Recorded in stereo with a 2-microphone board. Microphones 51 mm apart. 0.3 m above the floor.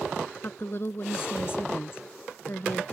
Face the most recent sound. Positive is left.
turn(degrees=50)  # may be behind; listen again after turning